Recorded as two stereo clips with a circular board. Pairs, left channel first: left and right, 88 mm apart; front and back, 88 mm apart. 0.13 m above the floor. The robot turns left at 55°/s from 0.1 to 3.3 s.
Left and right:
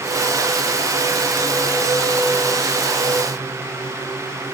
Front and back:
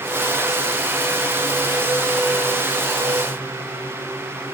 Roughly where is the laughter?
No laughter in this recording.